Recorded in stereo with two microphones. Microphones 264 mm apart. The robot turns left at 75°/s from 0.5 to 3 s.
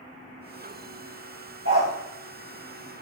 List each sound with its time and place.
1.6 s a dog barking: 60° right (ahead or behind), 3.5 m; by 1.9 s 40° right (ahead or behind), 3.5 m